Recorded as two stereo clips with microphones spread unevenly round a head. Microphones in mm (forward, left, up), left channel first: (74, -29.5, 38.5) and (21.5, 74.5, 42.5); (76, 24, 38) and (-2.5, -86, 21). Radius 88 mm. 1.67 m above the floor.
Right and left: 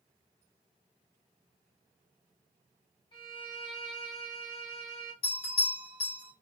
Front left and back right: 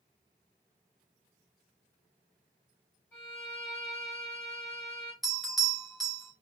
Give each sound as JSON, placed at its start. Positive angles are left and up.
{"t": 3.1, "sound": "a violin", "azimuth_deg": -20, "distance_m": 3.5}
{"t": 5.2, "sound": "a bell", "azimuth_deg": -35, "distance_m": 2.5}